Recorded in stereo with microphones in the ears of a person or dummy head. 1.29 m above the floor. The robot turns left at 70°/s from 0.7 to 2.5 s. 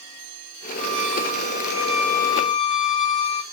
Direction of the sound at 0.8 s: 100° right.